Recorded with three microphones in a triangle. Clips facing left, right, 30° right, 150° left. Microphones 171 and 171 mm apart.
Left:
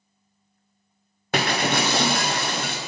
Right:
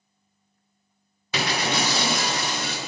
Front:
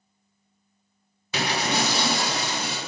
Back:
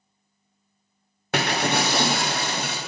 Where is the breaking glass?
125° left, 1.0 m.